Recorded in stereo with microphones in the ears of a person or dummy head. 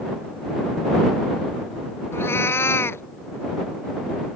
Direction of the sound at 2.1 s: 15° left (ahead or behind).